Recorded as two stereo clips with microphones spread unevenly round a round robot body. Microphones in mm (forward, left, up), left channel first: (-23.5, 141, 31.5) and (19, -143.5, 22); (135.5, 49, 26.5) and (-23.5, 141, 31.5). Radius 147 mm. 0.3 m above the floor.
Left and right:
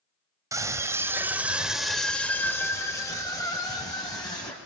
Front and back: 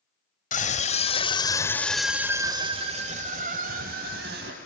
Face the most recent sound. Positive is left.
turn(degrees=175)